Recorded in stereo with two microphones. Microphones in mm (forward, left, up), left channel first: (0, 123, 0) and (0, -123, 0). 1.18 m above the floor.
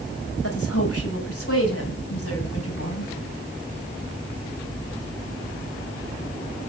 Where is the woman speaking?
70° left (ahead or behind), 5.5 m.